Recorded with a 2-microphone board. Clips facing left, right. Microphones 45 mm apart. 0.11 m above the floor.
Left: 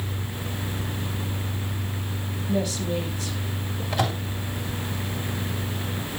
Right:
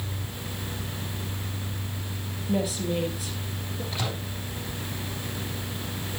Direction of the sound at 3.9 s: 65° left (ahead or behind).